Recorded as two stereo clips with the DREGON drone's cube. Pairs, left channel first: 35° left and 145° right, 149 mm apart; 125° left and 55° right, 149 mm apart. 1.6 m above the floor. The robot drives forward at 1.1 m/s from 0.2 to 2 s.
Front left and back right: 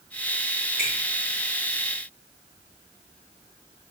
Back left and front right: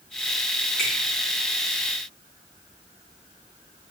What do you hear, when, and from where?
0.8 s a finger snap: 150° right, 2.5 m; by 0.9 s 155° right, 3 m